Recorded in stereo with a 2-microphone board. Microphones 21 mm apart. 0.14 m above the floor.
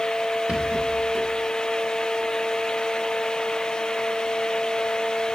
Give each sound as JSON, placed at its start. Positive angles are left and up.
{"t": 0.5, "sound": "a rattle", "side_deg": -75, "distance_m": 3.5}